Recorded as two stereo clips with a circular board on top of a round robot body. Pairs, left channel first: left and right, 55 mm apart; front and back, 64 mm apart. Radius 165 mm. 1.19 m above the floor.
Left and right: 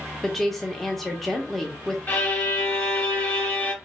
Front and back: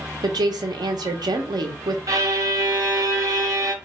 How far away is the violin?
About 1.3 m.